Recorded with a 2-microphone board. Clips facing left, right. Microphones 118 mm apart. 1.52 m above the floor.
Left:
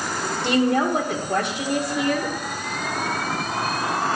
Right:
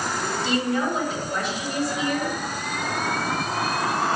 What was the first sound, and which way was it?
A woman speaking, 60° left (ahead or behind).